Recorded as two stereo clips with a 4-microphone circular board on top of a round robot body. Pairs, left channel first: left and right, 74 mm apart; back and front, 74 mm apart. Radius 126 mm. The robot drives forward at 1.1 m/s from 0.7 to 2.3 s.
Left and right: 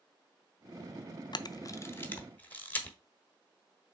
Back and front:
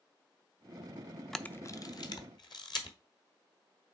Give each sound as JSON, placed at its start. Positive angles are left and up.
{"t": 1.3, "sound": "a camera shutter", "azimuth_deg": 95, "distance_m": 0.6}